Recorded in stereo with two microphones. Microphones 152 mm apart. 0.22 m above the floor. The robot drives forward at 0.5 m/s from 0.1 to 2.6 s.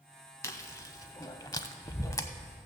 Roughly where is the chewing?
Left.